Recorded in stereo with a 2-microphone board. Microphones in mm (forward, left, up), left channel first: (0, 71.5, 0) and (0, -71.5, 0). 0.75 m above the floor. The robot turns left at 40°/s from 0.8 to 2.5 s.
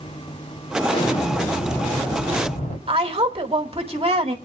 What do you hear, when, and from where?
0.9 s an explosion: 140° left, 3.5 m; by 2.8 s 75° left, 3.5 m
2.9 s a woman speaking: 40° right (ahead or behind), 1.6 m